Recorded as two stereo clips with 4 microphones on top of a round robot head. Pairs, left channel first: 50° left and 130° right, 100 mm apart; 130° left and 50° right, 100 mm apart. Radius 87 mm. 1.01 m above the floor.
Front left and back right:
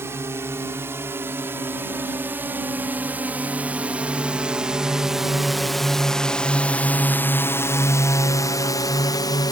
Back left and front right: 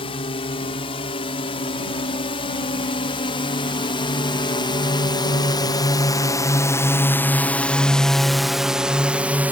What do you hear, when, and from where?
0.0 s a drone: 165° left; by 9.5 s 20° left